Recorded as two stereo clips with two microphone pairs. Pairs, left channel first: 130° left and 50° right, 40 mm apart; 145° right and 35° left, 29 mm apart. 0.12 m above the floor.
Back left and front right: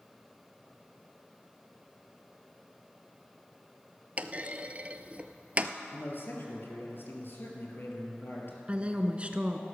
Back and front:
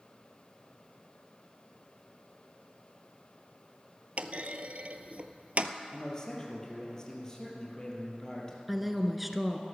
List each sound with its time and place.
4.2 s a clunk: 5° left, 0.7 m
5.9 s a man speaking: 150° left, 3.5 m
8.7 s a woman speaking: 50° right, 1.1 m